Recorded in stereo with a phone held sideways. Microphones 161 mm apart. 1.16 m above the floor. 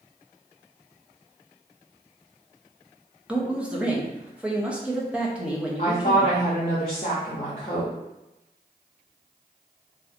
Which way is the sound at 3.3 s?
5° right (ahead or behind).